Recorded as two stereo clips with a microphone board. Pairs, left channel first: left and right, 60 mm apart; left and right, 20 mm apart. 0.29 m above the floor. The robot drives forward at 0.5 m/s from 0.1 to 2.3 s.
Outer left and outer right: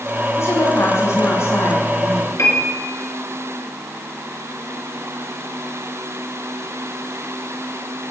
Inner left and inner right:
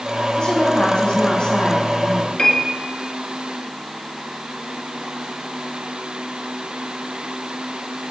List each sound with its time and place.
0.4 s a woman speaking: 55° left (ahead or behind), 2.5 m; by 2.3 s 50° left (ahead or behind), 2.5 m
2.4 s a piano: 55° left (ahead or behind), 3 m